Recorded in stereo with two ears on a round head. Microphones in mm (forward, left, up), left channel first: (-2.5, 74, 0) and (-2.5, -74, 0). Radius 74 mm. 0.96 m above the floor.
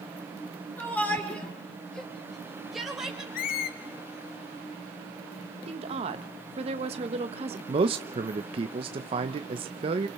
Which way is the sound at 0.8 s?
10° left (ahead or behind).